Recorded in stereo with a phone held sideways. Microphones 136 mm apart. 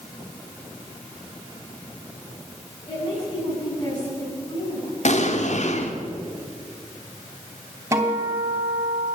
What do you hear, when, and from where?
2.9 s a woman speaking: 30° left (ahead or behind), 8 m
5.0 s an explosion: 60° left (ahead or behind), 1.9 m
7.9 s a guitar: 20° right (ahead or behind), 3 m